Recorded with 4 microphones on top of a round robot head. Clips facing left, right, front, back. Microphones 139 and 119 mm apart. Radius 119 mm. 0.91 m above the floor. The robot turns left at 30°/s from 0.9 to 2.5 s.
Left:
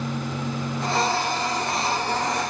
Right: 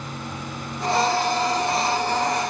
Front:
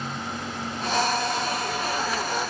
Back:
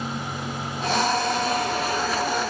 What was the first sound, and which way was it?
Only background noise.